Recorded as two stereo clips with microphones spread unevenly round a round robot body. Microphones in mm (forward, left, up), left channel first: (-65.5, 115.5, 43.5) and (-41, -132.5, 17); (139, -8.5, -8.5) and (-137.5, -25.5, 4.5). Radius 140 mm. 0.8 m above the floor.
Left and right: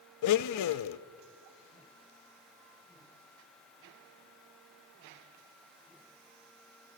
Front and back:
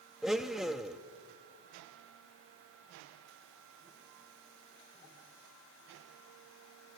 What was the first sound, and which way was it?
A blender, 95° left.